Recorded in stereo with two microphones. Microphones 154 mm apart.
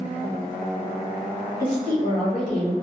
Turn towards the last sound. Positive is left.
turn(degrees=60)  # may be behind; listen again after turning